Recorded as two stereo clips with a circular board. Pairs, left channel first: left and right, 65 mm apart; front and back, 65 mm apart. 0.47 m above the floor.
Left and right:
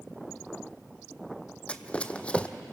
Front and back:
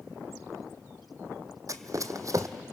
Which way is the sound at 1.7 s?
160° left.